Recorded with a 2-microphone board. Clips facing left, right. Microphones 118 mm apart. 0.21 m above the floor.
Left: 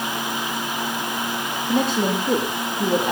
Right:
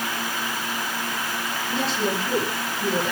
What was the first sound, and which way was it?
A woman speaking, 50° left (ahead or behind).